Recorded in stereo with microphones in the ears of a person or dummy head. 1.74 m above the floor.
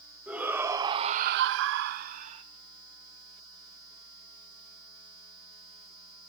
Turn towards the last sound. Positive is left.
turn(degrees=-35)  # may be behind; listen again after turning